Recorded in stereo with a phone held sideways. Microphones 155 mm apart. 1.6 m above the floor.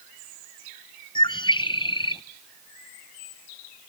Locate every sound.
1.1 s a bird: 30° left (ahead or behind), 0.7 m